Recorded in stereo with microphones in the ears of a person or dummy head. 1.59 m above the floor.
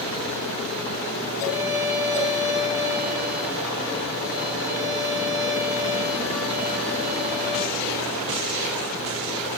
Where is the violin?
5° left (ahead or behind), 0.6 m.